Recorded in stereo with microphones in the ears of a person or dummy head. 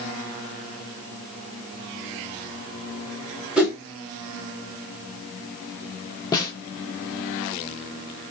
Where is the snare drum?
20° left (ahead or behind), 0.8 m.